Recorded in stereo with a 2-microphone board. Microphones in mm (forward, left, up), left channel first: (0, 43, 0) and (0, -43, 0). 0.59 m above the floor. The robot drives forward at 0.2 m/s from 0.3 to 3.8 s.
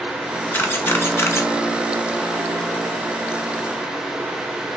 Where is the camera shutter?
25° left (ahead or behind), 0.6 m; by 1.5 s 30° left (ahead or behind), 0.5 m.